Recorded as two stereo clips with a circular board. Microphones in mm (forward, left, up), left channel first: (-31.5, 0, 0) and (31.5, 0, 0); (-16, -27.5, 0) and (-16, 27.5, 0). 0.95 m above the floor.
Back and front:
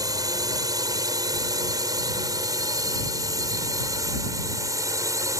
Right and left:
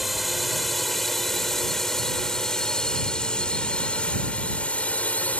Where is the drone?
Straight ahead; by 5.4 s 30° right.